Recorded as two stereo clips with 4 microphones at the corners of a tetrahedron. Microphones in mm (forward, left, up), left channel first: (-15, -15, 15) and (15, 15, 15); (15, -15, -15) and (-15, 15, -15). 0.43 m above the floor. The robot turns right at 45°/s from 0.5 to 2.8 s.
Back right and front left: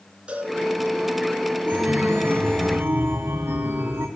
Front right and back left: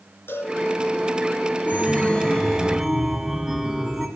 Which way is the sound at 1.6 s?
Straight ahead.